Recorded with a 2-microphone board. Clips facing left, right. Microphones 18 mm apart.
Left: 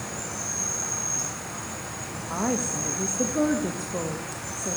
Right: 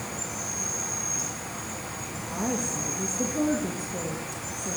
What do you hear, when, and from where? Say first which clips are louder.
0.0 s an insect: left 1 dB; 25° left (ahead or behind), 2 m
2.3 s a woman speaking: left 3 dB; 45° left (ahead or behind), 0.8 m